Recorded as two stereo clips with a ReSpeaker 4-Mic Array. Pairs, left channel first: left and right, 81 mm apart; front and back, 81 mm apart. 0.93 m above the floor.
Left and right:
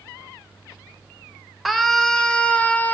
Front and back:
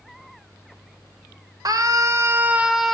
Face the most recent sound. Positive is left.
turn(degrees=80)